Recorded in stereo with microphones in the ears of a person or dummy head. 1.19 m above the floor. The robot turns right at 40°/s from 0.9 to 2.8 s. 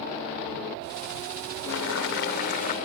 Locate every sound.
1.7 s boiling: 95° left; by 2.8 s 135° left